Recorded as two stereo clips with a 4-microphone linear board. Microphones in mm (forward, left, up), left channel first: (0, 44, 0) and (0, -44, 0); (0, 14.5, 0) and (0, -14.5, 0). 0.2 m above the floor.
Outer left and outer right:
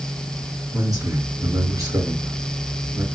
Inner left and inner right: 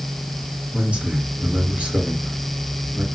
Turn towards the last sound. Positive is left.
turn(degrees=-45)  # may be behind; listen again after turning